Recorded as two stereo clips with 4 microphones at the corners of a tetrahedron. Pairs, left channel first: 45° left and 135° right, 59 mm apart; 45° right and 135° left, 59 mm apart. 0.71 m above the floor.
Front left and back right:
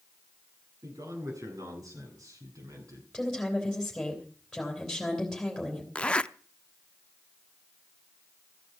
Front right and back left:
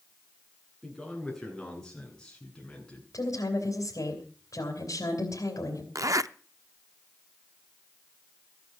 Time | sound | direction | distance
0.8 | a man speaking | 130° right | 9 m
3.1 | a woman speaking | 40° right | 3.5 m
6.0 | a zipper | 115° left | 0.5 m